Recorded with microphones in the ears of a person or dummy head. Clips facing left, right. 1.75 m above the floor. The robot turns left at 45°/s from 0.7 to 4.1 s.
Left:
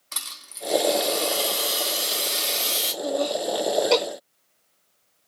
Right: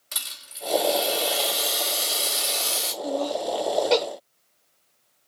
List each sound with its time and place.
0.1 s a rattle: 135° right, 2 m; by 2.9 s 125° left, 2 m
3.0 s laughter: 35° left (ahead or behind), 1.2 m; by 4.0 s 10° right (ahead or behind), 1.2 m